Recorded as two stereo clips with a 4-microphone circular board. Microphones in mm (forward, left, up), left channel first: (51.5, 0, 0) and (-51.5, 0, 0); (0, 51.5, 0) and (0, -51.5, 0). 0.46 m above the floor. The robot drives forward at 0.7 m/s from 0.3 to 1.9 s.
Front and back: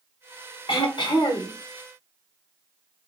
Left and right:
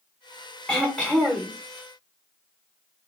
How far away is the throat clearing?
About 1.8 m.